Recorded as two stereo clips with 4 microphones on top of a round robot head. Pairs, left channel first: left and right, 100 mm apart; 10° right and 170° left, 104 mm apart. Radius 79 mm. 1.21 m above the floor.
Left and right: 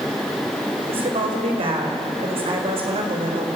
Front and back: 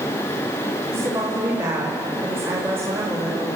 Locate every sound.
0.9 s a woman speaking: 115° right, 5.5 m